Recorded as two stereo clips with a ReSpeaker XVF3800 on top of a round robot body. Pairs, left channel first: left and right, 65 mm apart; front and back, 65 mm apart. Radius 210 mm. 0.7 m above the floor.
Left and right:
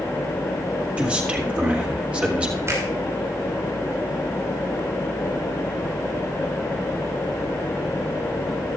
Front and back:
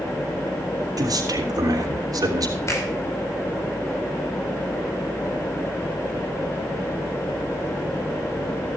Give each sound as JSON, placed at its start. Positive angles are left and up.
{"t": 1.0, "sound": "a man speaking", "azimuth_deg": -160, "distance_m": 3.0}
{"t": 2.7, "sound": "a finger snap", "azimuth_deg": -45, "distance_m": 5.5}